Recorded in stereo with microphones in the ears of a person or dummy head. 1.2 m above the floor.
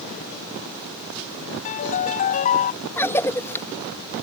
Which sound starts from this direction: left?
A piano, at 1.6 s.